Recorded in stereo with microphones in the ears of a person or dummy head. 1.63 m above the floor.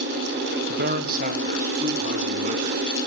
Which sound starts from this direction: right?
A man speaking, at 0.7 s.